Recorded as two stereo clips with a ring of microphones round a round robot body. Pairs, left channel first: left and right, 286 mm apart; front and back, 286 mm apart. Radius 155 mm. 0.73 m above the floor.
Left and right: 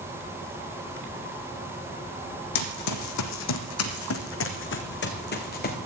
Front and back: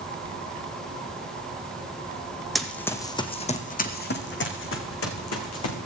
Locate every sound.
2.5 s running footsteps: 90° left, 1.5 m; by 5.8 s 30° left, 2.5 m